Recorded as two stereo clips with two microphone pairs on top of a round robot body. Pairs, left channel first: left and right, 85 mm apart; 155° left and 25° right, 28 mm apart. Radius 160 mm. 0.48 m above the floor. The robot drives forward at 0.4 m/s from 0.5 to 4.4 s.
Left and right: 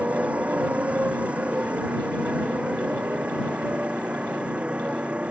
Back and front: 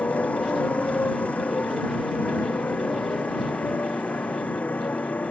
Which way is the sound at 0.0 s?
165° right.